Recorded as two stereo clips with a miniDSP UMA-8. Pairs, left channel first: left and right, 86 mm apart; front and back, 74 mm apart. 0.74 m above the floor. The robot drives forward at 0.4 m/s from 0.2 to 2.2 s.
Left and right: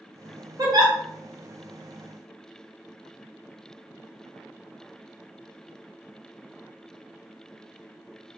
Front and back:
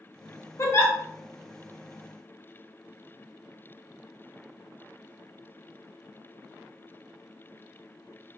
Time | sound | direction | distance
0.6 | a giggle | 50° right | 0.7 m